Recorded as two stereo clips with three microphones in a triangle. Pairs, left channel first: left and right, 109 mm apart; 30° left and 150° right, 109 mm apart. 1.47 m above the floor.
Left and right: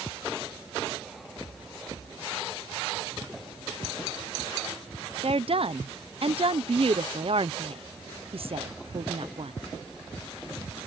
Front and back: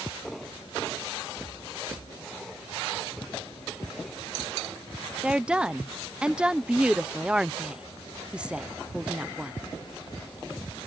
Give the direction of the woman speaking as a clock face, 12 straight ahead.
2 o'clock.